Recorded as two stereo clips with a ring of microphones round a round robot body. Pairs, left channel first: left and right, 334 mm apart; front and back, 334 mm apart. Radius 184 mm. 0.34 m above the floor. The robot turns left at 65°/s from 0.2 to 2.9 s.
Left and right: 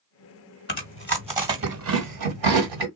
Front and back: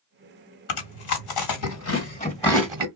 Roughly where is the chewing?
Ahead left.